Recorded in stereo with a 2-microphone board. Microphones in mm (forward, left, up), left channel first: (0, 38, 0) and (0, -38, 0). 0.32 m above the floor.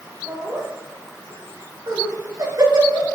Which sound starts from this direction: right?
Laughter, at 0.3 s.